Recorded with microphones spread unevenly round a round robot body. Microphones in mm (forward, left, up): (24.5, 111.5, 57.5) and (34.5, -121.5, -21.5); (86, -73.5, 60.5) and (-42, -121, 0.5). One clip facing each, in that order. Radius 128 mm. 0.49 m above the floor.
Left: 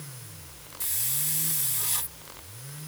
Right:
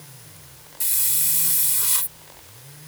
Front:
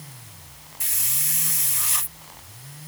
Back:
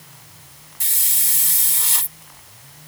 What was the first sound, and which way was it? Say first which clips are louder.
A hiss: left 5 dB, front 1 dB; 150° right.